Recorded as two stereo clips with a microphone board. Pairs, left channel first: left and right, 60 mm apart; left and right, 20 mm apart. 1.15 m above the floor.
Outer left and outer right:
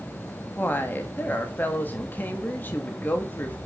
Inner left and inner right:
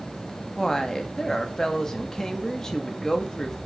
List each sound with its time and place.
0.6 s a woman speaking: 35° left (ahead or behind), 2.5 m